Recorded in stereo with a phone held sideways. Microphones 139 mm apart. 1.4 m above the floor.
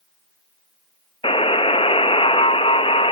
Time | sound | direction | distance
1.2 | a buzzer | 40° left (ahead or behind) | 0.8 m